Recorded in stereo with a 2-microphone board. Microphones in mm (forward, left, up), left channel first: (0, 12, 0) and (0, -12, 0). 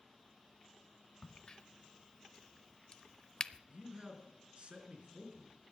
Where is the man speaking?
50° right (ahead or behind), 4 m.